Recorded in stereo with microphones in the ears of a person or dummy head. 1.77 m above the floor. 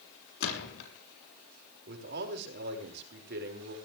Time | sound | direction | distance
0.4 | a gunshot | 65° left (ahead or behind) | 6.5 m
1.9 | a man speaking | 65° right (ahead or behind) | 5 m